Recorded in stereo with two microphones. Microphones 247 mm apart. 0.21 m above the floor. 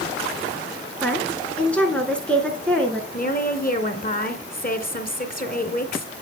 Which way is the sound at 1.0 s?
5° left (ahead or behind).